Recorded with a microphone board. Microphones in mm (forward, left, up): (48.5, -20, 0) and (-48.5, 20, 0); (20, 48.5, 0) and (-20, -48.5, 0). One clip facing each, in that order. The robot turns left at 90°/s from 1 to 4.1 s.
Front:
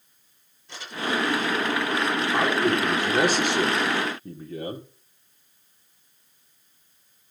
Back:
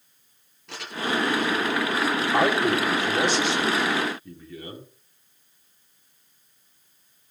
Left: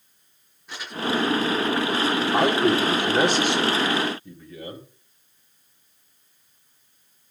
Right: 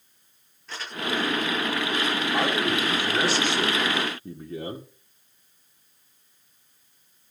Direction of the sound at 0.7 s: 145° left.